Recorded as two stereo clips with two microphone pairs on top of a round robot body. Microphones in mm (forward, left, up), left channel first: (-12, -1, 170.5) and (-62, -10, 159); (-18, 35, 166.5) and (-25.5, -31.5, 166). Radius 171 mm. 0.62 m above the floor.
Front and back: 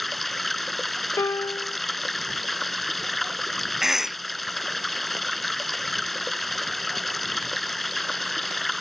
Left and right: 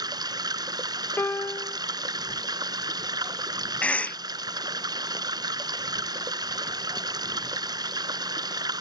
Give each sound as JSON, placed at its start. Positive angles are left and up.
{"t": 0.0, "sound": "running water", "azimuth_deg": -80}
{"t": 1.2, "sound": "a piano", "azimuth_deg": 30}
{"t": 3.8, "sound": "a cough", "azimuth_deg": 135}